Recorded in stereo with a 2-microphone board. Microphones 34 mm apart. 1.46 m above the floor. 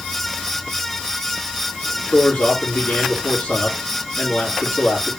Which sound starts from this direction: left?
A man speaking, at 2.0 s.